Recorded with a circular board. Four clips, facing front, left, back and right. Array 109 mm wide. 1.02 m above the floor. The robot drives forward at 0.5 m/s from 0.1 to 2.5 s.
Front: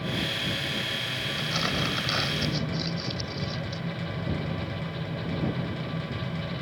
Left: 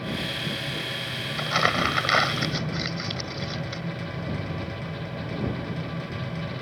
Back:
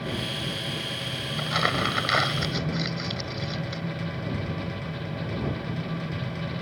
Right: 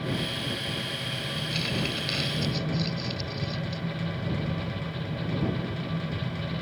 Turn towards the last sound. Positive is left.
turn(degrees=120)